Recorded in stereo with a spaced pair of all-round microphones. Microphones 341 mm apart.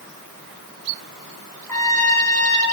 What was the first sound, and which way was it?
A trumpet, 65° right (ahead or behind).